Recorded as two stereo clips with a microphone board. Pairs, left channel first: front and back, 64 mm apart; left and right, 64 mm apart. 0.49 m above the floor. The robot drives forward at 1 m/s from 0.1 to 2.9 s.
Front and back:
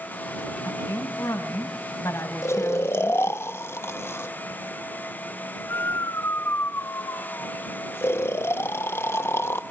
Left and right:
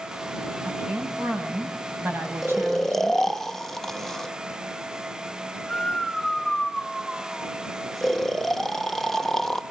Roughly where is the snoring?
Ahead.